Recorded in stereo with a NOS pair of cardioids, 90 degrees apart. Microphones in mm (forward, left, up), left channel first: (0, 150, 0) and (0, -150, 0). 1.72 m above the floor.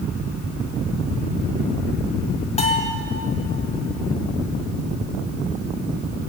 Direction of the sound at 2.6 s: 20° left.